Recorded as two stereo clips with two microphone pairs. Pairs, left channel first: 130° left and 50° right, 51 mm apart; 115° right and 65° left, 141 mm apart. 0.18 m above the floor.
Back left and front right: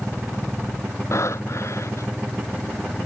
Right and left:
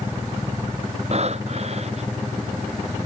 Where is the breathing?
110° left.